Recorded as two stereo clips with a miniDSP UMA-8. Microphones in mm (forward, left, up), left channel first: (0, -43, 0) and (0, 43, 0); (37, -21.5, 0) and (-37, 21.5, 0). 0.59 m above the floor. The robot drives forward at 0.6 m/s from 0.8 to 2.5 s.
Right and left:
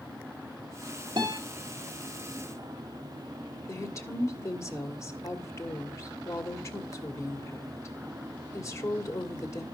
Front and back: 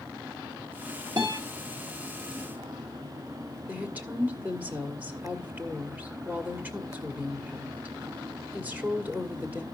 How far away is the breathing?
I don't hear breathing.